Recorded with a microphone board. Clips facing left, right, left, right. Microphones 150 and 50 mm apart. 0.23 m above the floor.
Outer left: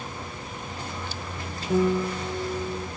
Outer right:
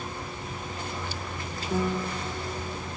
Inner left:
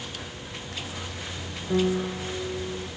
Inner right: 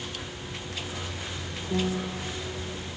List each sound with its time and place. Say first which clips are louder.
1.7 s a piano: outer left 6 dB, inner left 5 dB; 65° left (ahead or behind), 1.6 m